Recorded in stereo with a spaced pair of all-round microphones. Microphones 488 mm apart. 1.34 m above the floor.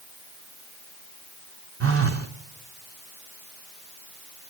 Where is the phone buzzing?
30° right (ahead or behind), 0.9 m.